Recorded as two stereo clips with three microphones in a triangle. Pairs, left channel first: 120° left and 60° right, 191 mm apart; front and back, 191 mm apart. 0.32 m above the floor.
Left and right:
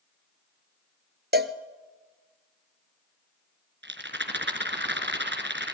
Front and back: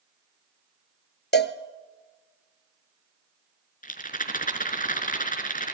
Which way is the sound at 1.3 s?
25° right.